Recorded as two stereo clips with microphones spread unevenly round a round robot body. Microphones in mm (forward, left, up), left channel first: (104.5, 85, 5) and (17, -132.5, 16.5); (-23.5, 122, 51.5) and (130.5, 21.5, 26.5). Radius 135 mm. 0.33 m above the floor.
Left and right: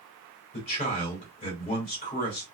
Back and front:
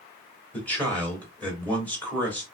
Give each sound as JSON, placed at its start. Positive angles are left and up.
{"t": 0.5, "sound": "a man speaking", "azimuth_deg": 55, "distance_m": 1.7}